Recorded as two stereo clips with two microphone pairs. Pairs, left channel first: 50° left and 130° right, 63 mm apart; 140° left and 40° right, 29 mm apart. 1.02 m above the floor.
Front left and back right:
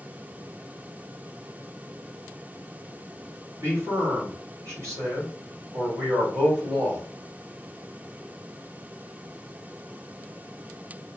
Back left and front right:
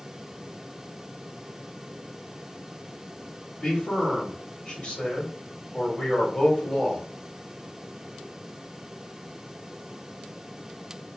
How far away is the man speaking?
About 1.8 m.